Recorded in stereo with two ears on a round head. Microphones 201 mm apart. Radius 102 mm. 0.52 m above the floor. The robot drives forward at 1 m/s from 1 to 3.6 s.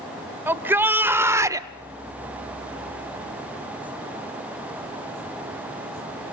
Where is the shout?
10° right (ahead or behind), 1.4 m; by 1.7 s 15° right (ahead or behind), 0.8 m.